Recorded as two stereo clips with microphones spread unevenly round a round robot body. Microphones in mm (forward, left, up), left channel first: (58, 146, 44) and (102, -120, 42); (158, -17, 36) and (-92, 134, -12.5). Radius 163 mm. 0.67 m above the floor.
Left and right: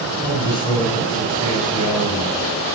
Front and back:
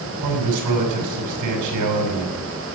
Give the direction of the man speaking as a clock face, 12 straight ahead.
6 o'clock.